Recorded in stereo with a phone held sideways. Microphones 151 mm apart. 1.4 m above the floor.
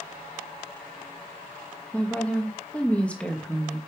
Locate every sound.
1.9 s a woman speaking: 10° left (ahead or behind), 2 m